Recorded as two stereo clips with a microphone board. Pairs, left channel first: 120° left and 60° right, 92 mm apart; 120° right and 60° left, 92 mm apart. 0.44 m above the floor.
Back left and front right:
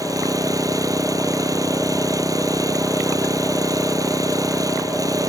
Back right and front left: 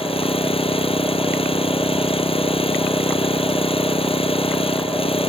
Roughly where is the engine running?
Right.